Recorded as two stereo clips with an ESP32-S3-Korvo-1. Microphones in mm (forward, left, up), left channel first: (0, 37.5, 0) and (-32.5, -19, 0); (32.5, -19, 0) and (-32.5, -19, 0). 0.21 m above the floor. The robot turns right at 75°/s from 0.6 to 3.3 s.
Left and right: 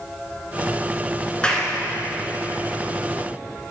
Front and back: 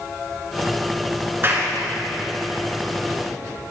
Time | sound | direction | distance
1.4 | a clap | 135° left | 2.5 m